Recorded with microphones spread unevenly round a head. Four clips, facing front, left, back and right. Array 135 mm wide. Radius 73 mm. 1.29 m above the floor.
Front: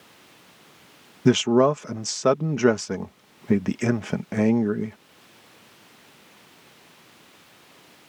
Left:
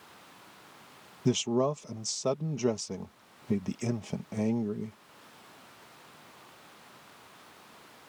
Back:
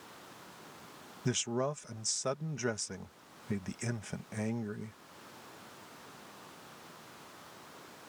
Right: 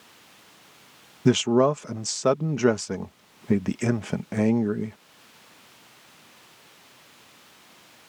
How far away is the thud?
I don't hear a thud.